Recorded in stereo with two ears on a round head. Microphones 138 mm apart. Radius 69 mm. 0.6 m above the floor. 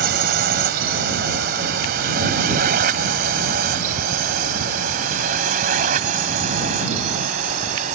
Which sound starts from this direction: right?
A drone, at 0.0 s.